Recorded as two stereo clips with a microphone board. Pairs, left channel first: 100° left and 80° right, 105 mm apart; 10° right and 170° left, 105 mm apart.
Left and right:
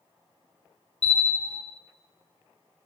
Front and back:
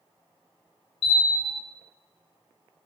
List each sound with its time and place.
1.0 s a bell: 25° right, 0.8 m